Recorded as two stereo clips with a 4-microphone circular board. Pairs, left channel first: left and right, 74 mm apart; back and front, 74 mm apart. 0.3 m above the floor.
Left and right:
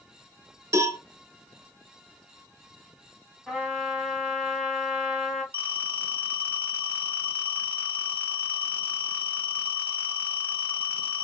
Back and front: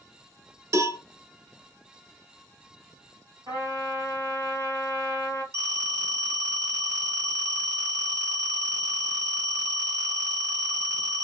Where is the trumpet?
5° right, 1.6 m.